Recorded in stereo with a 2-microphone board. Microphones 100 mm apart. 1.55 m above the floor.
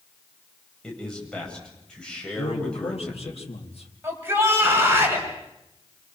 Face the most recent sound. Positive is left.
turn(degrees=-20)  # may be behind; listen again after turning